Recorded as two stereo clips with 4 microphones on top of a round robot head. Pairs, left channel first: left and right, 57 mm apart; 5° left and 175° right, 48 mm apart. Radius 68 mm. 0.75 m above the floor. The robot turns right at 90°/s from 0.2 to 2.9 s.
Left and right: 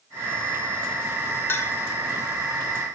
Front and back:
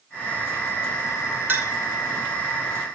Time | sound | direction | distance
1.5 | a clink | 140° left | 2 m